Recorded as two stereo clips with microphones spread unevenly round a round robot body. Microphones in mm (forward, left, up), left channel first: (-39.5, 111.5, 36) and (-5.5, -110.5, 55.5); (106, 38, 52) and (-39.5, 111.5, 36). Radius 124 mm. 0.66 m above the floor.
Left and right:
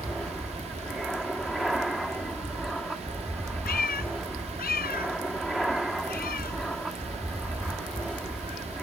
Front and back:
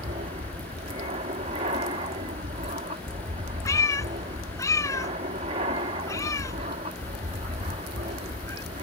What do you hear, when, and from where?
0.0 s an aircraft: 175° right
3.6 s a cat meowing: 45° left